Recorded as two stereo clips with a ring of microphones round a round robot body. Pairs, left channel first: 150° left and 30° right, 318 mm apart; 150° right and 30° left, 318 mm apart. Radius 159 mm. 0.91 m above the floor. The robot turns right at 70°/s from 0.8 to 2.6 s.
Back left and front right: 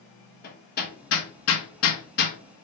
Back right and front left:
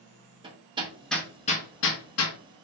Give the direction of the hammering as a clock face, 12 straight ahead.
9 o'clock.